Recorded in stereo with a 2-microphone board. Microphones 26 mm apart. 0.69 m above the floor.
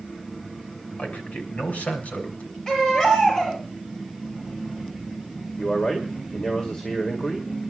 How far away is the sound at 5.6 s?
About 2 m.